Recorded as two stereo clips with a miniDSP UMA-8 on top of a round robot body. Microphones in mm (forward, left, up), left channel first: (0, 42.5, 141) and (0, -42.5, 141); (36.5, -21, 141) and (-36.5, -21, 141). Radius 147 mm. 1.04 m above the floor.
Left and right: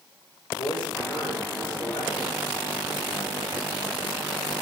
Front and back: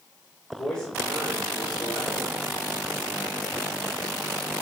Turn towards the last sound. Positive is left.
turn(degrees=95)